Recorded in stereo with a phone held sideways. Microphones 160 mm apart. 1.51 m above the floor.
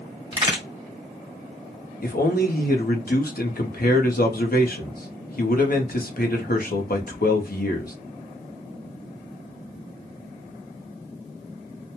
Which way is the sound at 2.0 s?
65° left (ahead or behind).